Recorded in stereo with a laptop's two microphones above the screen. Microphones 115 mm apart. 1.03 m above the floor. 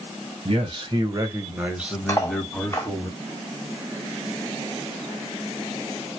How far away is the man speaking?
About 1.1 m.